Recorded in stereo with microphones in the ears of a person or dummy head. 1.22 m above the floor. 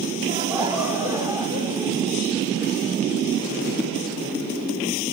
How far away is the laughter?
About 3.5 m.